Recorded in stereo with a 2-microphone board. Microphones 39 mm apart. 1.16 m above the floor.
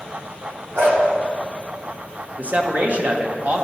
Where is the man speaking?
45° right (ahead or behind), 1.1 m.